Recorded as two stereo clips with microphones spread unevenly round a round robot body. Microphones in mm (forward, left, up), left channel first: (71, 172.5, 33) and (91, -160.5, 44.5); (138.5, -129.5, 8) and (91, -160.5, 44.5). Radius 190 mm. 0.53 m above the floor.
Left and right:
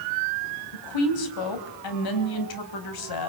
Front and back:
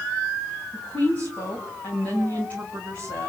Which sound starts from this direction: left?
A woman speaking, at 0.7 s.